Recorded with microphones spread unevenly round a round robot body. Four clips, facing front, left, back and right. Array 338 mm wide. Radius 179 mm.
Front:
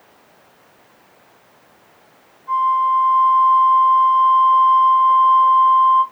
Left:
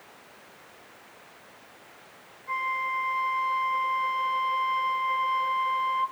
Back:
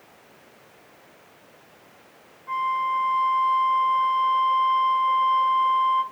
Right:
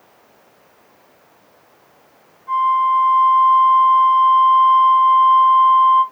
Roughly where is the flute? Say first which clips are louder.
Right 15 dB, front 8 dB; behind right.